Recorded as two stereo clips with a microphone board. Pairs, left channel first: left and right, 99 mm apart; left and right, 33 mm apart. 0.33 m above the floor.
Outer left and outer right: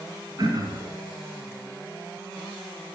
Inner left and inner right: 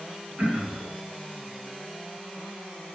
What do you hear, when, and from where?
0.4 s throat clearing: 45° right (ahead or behind), 2.5 m